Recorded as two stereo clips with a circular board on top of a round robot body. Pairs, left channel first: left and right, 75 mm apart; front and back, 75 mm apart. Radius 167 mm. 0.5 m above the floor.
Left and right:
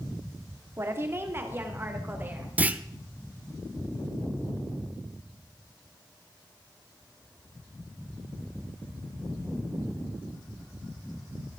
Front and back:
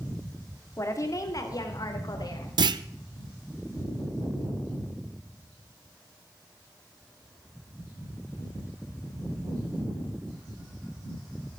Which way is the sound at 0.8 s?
40° right.